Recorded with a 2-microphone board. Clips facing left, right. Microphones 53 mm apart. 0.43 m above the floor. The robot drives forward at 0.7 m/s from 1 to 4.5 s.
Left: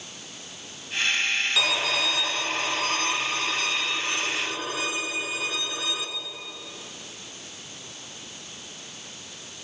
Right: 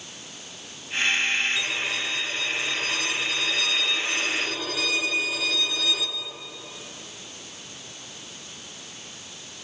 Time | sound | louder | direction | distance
1.6 | a violin | left 3 dB | 80° left | 1.0 m